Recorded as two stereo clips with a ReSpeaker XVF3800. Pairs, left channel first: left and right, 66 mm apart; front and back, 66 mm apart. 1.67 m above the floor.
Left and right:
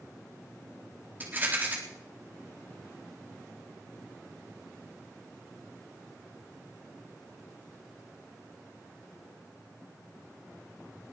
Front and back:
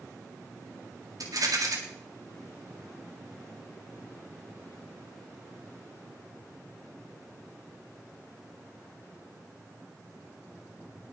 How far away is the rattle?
About 3.5 m.